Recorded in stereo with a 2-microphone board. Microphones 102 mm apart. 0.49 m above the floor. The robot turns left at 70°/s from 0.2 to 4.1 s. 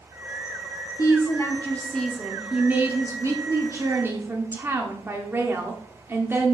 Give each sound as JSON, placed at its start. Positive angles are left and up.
{"t": 1.0, "sound": "a woman speaking", "azimuth_deg": 85, "distance_m": 0.9}